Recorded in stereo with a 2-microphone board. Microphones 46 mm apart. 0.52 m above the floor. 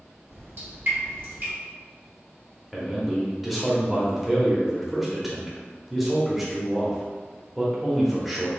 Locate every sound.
0.3 s dripping: 50° right (ahead or behind), 1.5 m
2.7 s a man speaking: 5° right (ahead or behind), 0.8 m